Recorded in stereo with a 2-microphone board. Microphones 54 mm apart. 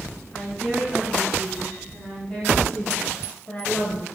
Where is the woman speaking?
15° left (ahead or behind), 4.5 m; by 4.0 s 30° left (ahead or behind), 1.8 m.